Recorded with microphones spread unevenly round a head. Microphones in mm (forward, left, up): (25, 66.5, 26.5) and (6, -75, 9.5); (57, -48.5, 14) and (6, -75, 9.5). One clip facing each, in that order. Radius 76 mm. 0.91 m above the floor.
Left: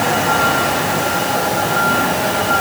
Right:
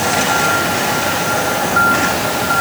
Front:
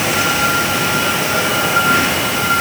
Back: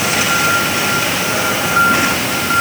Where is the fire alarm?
I don't hear a fire alarm.